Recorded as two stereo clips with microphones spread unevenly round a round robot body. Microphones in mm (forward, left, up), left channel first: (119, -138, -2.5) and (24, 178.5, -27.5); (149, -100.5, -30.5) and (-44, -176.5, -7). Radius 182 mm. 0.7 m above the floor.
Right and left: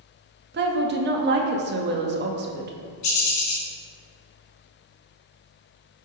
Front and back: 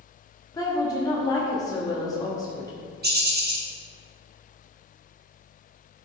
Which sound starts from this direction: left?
A woman speaking, at 0.5 s.